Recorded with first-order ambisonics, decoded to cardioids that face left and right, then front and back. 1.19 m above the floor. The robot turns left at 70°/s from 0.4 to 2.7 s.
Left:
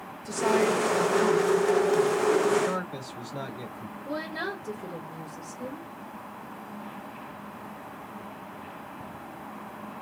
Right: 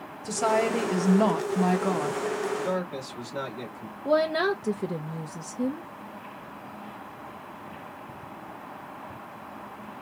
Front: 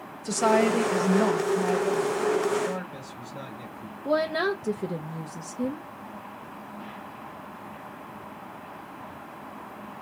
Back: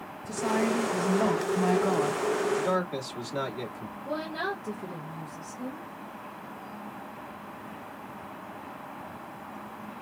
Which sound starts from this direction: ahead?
A woman speaking, at 0.2 s.